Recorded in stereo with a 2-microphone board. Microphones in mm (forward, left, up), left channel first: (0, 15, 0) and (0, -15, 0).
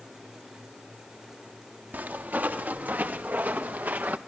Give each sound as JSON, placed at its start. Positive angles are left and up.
{"t": 1.9, "sound": "footsteps", "side_deg": -85, "distance_m": 3.0}